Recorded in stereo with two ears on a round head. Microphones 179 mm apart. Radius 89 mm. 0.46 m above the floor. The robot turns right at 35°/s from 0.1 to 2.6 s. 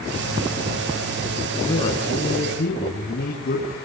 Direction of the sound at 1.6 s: 15° left.